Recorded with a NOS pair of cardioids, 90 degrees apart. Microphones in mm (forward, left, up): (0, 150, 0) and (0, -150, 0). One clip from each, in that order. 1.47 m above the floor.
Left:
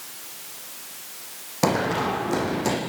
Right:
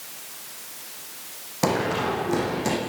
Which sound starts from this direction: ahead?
Running footsteps, at 1.6 s.